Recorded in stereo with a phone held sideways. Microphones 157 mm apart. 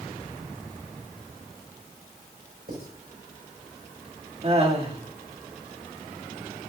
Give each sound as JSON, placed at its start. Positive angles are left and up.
{"t": 2.7, "sound": "writing", "side_deg": -85, "distance_m": 6.0}
{"t": 4.4, "sound": "laughter", "side_deg": -40, "distance_m": 2.5}